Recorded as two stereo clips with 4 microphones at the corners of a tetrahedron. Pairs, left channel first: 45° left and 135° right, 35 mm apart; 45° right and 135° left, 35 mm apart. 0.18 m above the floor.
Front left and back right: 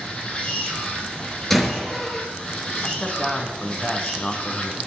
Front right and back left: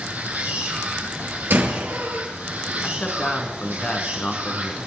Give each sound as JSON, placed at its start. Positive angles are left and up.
{"t": 0.0, "sound": "an insect", "azimuth_deg": 105, "distance_m": 4.0}
{"t": 1.5, "sound": "a door slam", "azimuth_deg": 125, "distance_m": 2.5}
{"t": 2.8, "sound": "a man speaking", "azimuth_deg": -15, "distance_m": 1.9}